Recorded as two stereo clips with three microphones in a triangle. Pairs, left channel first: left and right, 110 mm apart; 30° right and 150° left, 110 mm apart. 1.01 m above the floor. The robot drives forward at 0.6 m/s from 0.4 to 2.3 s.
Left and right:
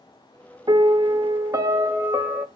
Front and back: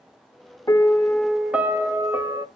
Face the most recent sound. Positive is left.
turn(degrees=-155)